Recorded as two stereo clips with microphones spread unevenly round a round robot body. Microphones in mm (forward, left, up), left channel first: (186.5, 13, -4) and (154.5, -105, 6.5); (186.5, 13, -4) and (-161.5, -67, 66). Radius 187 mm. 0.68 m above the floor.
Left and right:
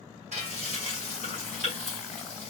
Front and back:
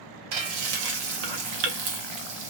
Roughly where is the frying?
Behind right.